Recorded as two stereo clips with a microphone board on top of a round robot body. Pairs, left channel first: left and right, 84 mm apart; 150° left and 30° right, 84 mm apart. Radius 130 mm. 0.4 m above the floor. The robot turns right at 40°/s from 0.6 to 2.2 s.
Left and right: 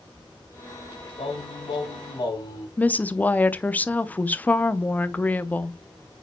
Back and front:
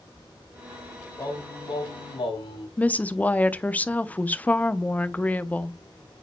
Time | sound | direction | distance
1.2 | singing | 95° left | 2.5 m
2.8 | a woman speaking | 120° left | 0.8 m